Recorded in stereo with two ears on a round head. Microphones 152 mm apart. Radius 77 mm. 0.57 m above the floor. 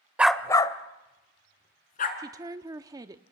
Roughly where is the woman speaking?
Right.